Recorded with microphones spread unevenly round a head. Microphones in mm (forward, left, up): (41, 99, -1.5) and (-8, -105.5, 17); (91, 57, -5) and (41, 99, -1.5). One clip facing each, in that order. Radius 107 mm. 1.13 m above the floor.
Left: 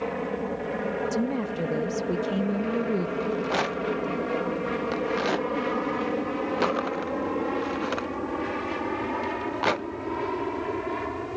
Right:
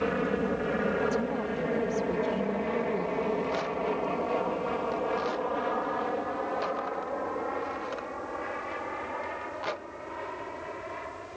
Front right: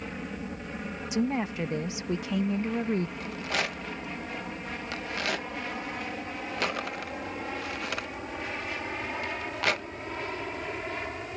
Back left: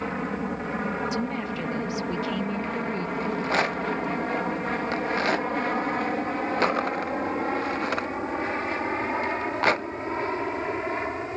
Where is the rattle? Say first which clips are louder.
Left 3 dB, back left 7 dB; 90° left.